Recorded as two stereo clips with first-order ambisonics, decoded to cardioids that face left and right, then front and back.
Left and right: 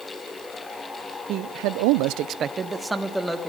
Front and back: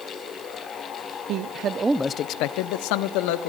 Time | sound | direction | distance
1.3 | a man speaking | 135° right | 1.0 m